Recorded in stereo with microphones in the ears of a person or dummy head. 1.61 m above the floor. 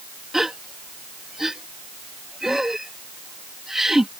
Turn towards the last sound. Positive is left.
turn(degrees=-5)  # may be behind; listen again after turning